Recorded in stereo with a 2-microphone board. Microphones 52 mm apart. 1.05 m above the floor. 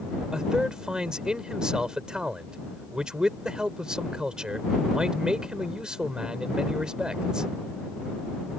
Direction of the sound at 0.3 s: 15° right (ahead or behind).